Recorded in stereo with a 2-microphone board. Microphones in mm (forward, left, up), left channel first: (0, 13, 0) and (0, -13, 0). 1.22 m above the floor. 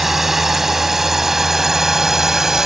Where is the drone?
15° right (ahead or behind); by 2.7 s 20° right (ahead or behind).